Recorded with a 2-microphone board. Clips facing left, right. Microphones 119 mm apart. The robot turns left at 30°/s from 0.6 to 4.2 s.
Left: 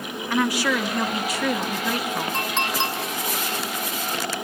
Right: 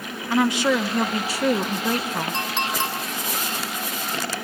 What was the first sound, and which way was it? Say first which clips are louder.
A woman speaking: right 3 dB; 40° right.